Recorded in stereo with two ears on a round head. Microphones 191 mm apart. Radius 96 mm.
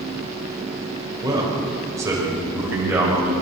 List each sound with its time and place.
1.2 s a man speaking: 20° right (ahead or behind), 6 m; by 3.3 s 10° right (ahead or behind), 7 m